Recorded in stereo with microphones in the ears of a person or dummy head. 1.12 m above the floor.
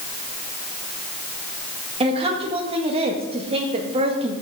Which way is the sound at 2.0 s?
25° right (ahead or behind).